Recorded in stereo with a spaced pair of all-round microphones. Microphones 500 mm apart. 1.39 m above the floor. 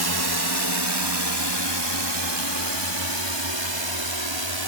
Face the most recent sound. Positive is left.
turn(degrees=-60)  # may be behind; listen again after turning